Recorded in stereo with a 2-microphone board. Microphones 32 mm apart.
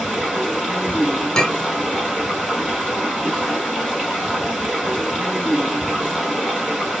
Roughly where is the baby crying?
I don't hear a baby crying.